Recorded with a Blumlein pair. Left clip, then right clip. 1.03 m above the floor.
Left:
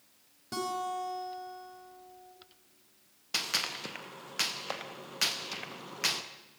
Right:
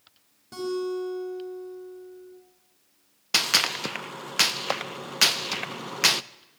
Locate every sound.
0.5 s a guitar: 15° left, 5.5 m
3.3 s a gunshot: 60° right, 0.6 m